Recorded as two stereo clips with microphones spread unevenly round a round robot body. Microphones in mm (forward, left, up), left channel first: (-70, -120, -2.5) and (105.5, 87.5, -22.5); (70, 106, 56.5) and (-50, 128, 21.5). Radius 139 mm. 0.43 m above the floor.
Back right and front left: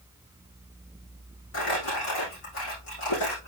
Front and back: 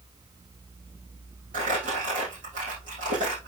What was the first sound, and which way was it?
Crumpling, 175° right.